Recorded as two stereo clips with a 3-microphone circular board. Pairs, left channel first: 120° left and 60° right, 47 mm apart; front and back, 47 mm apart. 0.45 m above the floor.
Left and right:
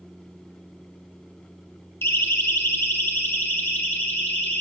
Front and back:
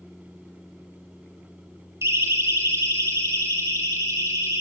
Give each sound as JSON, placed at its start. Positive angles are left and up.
{"t": 2.0, "sound": "a siren", "azimuth_deg": 155, "distance_m": 4.5}